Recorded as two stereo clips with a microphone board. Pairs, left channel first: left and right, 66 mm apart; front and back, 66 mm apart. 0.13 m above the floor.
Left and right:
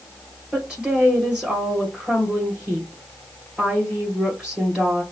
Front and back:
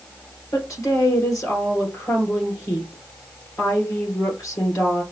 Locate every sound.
0.5 s a woman speaking: 20° right, 2.5 m